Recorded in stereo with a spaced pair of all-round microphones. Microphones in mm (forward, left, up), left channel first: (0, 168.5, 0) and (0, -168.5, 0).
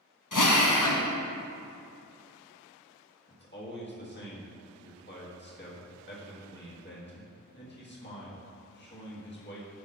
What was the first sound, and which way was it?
A drill, 65° left (ahead or behind).